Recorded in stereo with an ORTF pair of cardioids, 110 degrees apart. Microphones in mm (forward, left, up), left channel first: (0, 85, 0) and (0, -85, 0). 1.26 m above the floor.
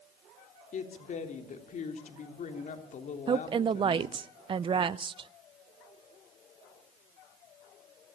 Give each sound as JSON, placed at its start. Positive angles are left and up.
{"t": 0.7, "sound": "a woman speaking", "azimuth_deg": 45, "distance_m": 3.0}
{"t": 3.3, "sound": "a woman speaking", "azimuth_deg": -30, "distance_m": 0.6}